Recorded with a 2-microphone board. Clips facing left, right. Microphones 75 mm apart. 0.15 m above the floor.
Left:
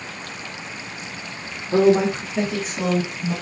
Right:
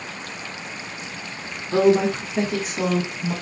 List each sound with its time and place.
1.7 s a woman speaking: 20° left (ahead or behind), 1.3 m; by 3.3 s 20° right (ahead or behind), 1.4 m